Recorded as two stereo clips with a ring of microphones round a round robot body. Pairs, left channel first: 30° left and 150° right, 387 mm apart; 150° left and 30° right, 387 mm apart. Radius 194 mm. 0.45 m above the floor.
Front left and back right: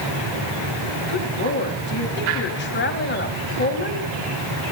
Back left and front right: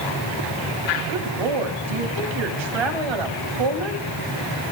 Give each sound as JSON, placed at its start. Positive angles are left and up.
{"t": 1.1, "sound": "a woman speaking", "azimuth_deg": -30, "distance_m": 3.5}